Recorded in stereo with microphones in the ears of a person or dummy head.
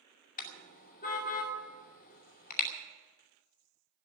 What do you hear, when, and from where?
0.4 s a car horn: 45° left (ahead or behind), 2 m